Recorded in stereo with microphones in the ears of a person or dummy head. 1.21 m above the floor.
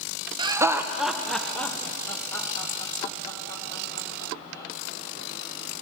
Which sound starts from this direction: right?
Laughter, at 0.4 s.